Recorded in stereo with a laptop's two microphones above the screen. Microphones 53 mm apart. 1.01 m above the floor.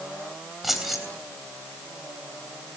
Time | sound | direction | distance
0.6 | keys jangling | 5° right (ahead or behind) | 3 m